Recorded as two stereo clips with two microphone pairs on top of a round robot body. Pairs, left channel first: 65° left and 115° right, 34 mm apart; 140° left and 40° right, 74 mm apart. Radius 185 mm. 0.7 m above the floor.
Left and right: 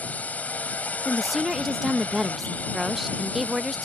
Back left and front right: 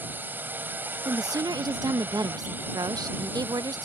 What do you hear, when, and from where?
0.0 s a drone: 25° left
1.1 s a woman speaking: 25° right